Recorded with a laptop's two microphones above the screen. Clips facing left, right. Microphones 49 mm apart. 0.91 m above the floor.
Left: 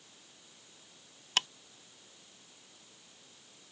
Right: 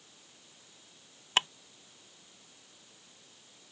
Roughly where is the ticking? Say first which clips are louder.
Right 3 dB; right.